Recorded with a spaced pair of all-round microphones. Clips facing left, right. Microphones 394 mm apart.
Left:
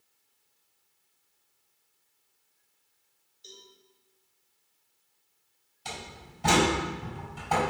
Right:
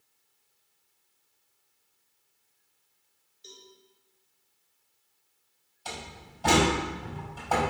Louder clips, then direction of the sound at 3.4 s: Even; 35° right (ahead or behind).